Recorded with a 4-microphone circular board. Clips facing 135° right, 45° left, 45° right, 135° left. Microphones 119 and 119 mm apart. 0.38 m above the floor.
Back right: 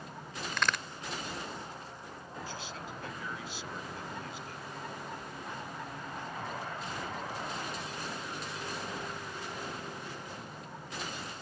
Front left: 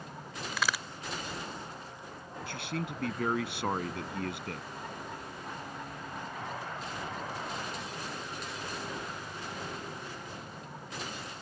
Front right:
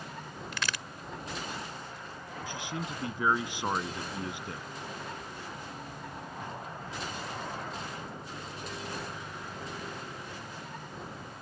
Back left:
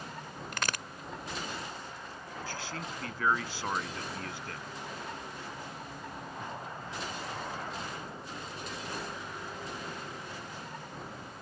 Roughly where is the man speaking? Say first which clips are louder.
Front left 8 dB, front right 3 dB; ahead left.